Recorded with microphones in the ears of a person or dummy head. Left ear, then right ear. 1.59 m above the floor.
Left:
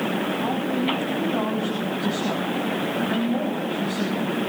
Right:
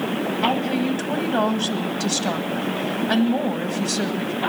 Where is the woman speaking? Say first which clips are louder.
Right 3 dB; 70° right (ahead or behind), 1.6 m.